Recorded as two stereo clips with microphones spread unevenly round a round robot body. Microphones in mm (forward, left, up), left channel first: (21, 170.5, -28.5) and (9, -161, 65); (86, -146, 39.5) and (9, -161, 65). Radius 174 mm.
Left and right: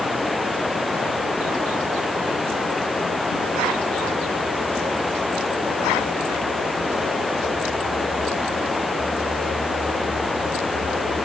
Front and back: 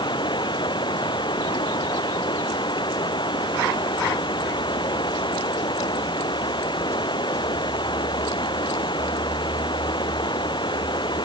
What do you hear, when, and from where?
0.0 s running water: straight ahead